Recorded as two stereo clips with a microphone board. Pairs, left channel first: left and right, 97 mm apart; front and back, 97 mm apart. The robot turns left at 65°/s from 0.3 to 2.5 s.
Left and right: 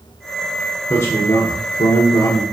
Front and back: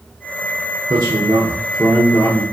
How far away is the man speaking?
About 1.3 m.